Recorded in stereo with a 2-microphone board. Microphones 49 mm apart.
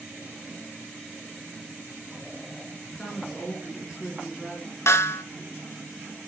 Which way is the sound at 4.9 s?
65° left (ahead or behind).